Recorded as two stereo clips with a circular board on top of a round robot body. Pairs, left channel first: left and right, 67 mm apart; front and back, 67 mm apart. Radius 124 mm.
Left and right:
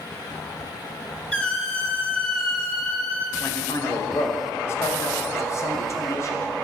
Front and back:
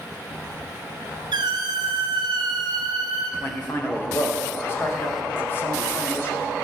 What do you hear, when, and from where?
1.3 s a squeak: 170° left, 1.4 m
3.4 s a man speaking: 50° left, 2 m